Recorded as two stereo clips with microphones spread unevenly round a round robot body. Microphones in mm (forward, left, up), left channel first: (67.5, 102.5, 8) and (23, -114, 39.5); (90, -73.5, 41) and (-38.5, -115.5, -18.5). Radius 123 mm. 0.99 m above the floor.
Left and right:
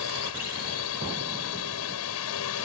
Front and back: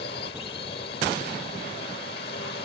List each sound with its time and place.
0.0 s a drone: 70° left